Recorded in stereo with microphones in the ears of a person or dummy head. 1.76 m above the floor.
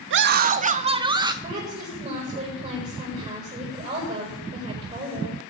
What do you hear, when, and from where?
0.1 s a scream: 55° right (ahead or behind), 0.8 m; by 1.3 s 15° right (ahead or behind), 1.8 m
1.4 s a woman speaking: 40° right (ahead or behind), 7.5 m